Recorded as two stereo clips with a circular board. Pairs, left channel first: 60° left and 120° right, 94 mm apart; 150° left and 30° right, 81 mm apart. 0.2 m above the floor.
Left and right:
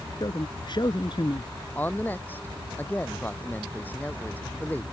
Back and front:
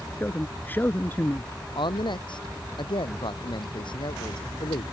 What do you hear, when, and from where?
0.2 s a man speaking: 85° left
1.8 s a woman speaking: 130° left